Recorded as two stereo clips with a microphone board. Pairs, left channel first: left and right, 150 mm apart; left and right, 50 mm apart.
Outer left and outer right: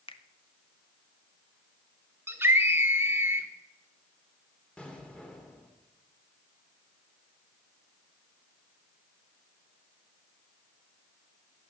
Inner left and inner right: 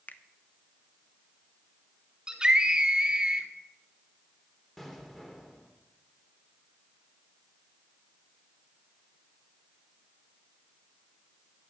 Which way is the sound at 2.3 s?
15° right (ahead or behind).